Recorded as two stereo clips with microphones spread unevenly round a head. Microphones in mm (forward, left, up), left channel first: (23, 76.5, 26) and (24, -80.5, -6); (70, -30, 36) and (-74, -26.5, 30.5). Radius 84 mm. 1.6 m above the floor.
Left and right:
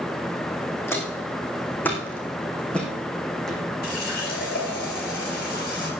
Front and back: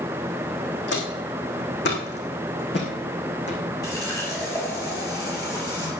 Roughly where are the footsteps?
Ahead.